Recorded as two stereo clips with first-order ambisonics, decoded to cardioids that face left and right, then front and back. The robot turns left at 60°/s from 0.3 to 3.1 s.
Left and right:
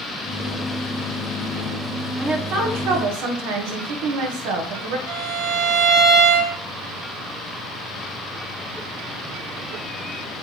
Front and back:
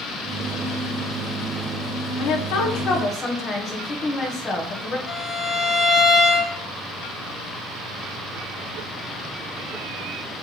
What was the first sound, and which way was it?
A woman speaking, 15° right.